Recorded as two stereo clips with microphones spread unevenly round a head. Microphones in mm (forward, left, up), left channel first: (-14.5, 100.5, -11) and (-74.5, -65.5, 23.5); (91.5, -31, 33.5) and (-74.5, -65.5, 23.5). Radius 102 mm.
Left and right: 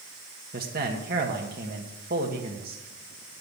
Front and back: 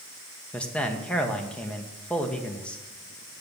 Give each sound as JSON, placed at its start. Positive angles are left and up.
{"t": 0.5, "sound": "a man speaking", "azimuth_deg": -70, "distance_m": 1.8}